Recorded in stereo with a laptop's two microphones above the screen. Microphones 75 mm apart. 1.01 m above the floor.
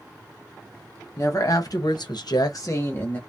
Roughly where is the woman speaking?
Left.